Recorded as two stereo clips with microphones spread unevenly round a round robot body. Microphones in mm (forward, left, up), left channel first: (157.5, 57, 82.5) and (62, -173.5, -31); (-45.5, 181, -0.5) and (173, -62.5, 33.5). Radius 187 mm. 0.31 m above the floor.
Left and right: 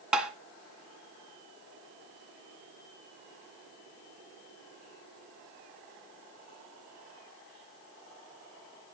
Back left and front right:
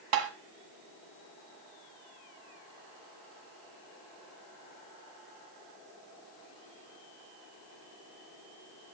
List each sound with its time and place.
0.1 s tapping: 35° right, 1.6 m